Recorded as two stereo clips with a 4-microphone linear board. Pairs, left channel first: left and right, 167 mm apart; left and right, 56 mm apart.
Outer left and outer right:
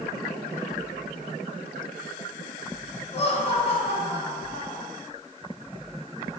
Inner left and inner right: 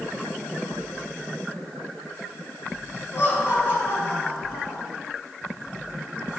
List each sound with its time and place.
3.1 s laughter: 40° left (ahead or behind), 2.0 m